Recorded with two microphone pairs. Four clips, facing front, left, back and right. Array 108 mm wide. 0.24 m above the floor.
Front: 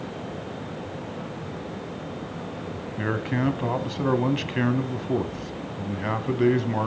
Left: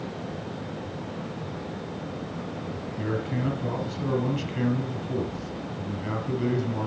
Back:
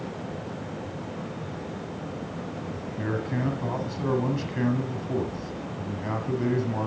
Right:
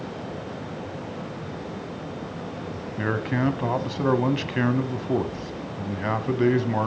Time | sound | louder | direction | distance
3.0 | a man speaking | right 5 dB, front 3 dB | 65° right | 1.4 m